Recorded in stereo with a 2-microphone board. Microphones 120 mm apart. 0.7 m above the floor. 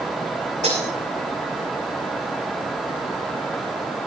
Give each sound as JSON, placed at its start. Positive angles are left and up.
{"t": 0.6, "sound": "breaking glass", "side_deg": -80, "distance_m": 8.5}